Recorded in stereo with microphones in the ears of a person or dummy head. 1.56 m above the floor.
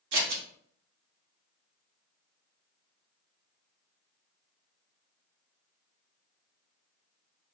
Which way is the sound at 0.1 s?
65° right (ahead or behind).